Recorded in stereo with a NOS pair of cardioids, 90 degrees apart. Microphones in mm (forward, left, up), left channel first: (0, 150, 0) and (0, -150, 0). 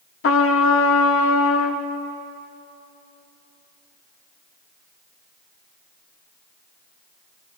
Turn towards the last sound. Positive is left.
turn(degrees=50)